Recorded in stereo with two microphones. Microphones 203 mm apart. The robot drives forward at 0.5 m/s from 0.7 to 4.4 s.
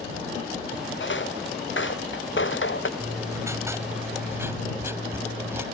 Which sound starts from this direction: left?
Footsteps, at 1.0 s.